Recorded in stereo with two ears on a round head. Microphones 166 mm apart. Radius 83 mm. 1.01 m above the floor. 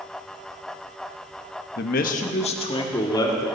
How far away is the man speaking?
About 1.1 m.